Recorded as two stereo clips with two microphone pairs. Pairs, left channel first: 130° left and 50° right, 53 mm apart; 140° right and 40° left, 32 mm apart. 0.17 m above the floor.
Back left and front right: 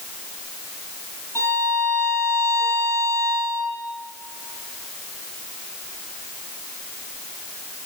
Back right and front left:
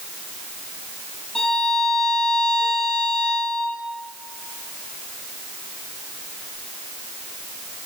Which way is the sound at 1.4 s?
145° left.